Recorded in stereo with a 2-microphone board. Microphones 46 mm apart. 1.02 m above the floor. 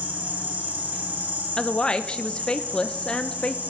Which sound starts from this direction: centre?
A woman speaking, at 1.6 s.